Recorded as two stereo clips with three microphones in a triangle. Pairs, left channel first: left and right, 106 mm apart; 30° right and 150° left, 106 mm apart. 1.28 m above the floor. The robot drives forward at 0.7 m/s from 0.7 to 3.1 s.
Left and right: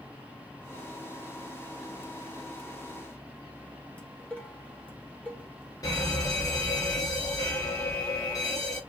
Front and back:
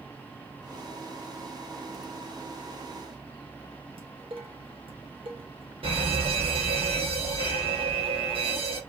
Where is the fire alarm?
140° left, 2 m.